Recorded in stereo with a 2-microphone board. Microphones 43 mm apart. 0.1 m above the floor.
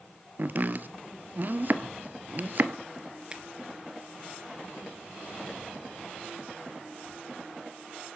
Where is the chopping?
50° right (ahead or behind), 0.7 m.